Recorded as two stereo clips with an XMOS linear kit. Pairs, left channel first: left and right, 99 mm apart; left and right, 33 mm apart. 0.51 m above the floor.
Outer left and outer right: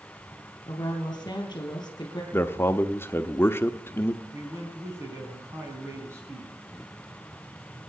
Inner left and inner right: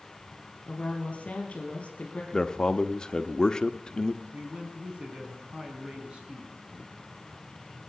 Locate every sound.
0.7 s a woman speaking: 45° left (ahead or behind), 4.5 m
2.3 s a man speaking: 25° left (ahead or behind), 0.9 m
4.3 s a man speaking: 30° right (ahead or behind), 4.5 m